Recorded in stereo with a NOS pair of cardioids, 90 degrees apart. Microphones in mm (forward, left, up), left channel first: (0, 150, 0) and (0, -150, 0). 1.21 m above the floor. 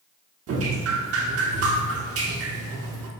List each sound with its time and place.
0.5 s dripping: 50° right, 0.7 m